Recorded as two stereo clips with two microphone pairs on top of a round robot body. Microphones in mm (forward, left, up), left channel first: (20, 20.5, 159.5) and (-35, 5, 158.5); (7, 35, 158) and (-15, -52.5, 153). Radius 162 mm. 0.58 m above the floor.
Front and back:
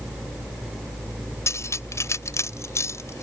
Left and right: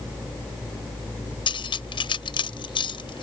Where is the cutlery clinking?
50° left.